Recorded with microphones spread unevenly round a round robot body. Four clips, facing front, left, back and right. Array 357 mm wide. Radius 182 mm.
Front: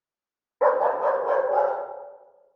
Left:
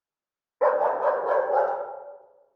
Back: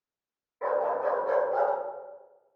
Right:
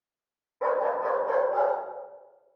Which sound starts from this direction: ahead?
A dog barking, at 0.6 s.